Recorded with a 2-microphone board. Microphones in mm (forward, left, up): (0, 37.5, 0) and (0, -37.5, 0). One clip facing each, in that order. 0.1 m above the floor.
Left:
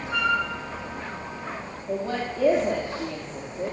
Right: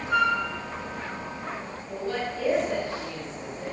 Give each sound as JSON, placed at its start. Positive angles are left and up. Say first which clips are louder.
{"t": 0.1, "sound": "a flute", "louder": "right 1 dB", "side_deg": -80, "distance_m": 8.0}
{"t": 1.9, "sound": "a woman speaking", "louder": "left 3 dB", "side_deg": 40, "distance_m": 4.5}